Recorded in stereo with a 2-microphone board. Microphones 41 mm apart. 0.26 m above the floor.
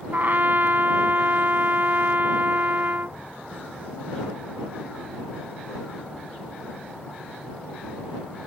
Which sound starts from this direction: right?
A trumpet, at 0.1 s.